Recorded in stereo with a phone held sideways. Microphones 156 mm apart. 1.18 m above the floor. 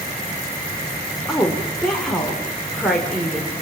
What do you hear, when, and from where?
1.3 s a woman speaking: centre (ahead or behind), 4 m